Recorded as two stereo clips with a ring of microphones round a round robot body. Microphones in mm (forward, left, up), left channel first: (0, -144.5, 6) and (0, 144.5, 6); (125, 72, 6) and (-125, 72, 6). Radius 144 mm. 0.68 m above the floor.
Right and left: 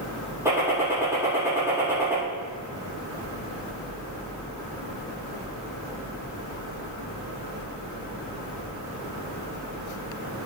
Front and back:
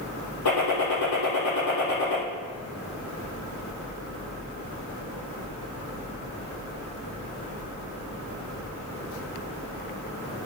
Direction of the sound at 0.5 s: 10° left.